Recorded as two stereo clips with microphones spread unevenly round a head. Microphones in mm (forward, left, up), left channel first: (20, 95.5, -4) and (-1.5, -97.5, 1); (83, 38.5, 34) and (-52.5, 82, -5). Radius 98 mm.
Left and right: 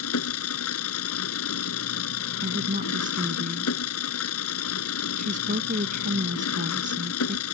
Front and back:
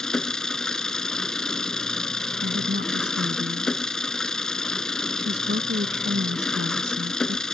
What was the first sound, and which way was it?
An engine running, 65° left.